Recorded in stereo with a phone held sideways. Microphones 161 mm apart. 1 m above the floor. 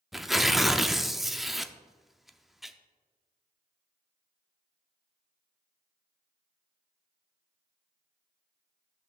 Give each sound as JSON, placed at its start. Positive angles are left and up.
{"t": 0.1, "sound": "tearing paper", "side_deg": 0, "distance_m": 0.5}